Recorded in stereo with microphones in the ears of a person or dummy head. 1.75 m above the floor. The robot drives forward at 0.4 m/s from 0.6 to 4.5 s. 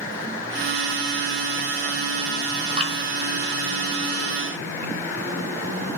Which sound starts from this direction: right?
Dripping, at 2.8 s.